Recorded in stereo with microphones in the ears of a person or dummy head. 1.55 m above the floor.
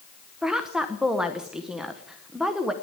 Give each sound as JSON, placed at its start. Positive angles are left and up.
{"t": 0.4, "sound": "a woman speaking", "side_deg": -5, "distance_m": 0.7}